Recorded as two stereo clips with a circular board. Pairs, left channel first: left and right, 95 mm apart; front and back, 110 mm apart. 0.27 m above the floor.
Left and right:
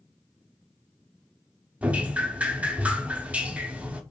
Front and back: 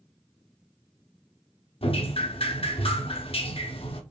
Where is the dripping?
15° right, 0.5 m.